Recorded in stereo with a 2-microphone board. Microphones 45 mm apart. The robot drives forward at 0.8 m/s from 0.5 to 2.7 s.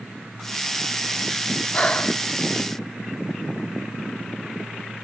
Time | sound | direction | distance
1.7 | breathing | 30° left (ahead or behind) | 1.0 m